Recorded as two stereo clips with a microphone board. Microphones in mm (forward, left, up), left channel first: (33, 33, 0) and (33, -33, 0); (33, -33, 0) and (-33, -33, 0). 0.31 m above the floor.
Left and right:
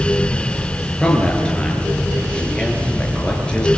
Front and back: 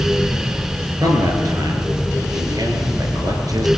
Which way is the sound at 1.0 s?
165° left.